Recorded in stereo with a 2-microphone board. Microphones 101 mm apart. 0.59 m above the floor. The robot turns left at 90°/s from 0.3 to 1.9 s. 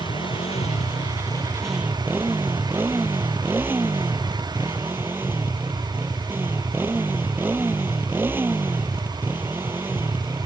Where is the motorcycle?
125° left; by 10.5 s 20° right.